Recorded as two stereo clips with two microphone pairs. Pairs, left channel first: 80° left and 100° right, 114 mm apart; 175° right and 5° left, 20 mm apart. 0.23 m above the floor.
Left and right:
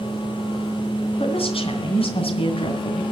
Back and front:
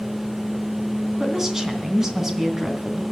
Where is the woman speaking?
75° left, 2.5 m.